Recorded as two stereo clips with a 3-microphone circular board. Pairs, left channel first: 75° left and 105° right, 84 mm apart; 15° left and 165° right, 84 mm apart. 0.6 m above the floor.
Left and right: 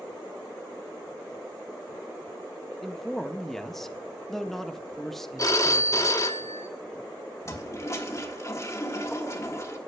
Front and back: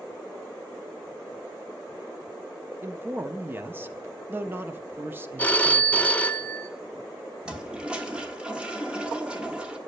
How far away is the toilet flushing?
About 1.3 m.